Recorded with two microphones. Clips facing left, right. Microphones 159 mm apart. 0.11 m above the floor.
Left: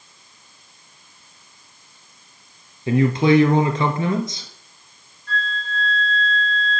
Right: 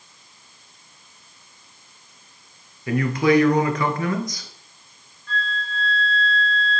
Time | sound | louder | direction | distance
2.9 | a man speaking | left 3 dB | 25° left (ahead or behind) | 1.4 m
5.3 | a flute | left 1 dB | 40° left (ahead or behind) | 4 m